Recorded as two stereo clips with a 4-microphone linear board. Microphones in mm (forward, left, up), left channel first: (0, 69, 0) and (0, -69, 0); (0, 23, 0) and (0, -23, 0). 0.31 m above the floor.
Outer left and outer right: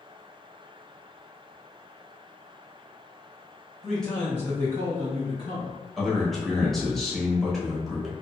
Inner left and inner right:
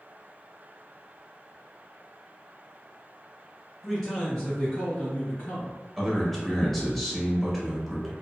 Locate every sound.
3.8 s a man speaking: centre (ahead or behind), 1.0 m; by 5.7 s 40° left (ahead or behind), 1.5 m
6.0 s a man speaking: centre (ahead or behind), 0.9 m